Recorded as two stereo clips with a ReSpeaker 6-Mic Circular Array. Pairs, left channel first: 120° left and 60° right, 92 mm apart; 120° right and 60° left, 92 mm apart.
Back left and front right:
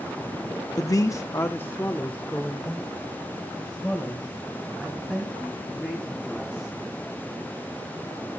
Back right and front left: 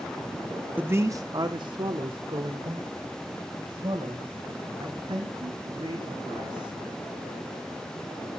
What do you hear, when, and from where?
0.8 s a man speaking: 120° left, 0.8 m; by 6.7 s 30° left, 4.5 m